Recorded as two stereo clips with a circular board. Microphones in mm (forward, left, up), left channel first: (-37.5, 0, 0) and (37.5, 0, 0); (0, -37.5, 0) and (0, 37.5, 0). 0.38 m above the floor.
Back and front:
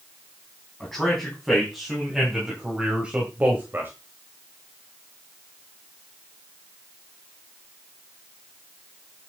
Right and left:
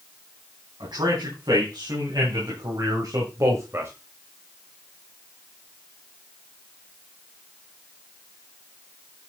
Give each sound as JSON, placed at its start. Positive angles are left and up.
{"t": 0.8, "sound": "a man speaking", "azimuth_deg": 95, "distance_m": 4.0}